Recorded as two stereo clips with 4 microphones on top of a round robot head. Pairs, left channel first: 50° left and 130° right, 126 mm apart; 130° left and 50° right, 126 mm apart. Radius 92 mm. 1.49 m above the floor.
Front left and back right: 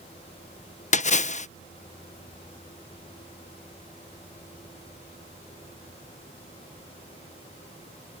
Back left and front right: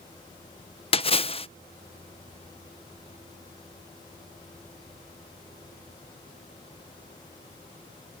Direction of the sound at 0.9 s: 85° left.